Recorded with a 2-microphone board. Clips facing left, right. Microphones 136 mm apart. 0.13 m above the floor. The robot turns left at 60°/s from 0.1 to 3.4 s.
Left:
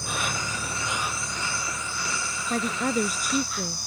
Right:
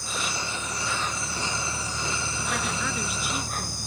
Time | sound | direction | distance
0.0 | an insect | 65° left | ?
2.5 | a woman speaking | 125° left | ?